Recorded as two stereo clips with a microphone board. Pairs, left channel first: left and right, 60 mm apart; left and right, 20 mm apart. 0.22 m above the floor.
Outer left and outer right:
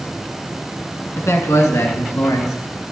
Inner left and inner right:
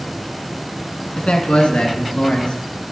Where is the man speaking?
55° left (ahead or behind), 2 m; by 2.5 s 65° left (ahead or behind), 3 m.